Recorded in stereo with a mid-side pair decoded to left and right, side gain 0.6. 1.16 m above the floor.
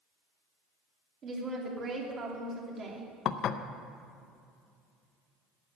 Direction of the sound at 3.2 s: 50° left.